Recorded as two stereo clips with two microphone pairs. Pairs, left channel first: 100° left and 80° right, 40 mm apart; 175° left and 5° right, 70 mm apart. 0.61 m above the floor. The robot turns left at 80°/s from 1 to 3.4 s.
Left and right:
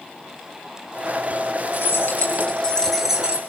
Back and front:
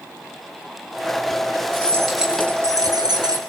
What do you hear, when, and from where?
1.7 s keys jangling: 115° left, 7 m; by 3.4 s 20° right, 7 m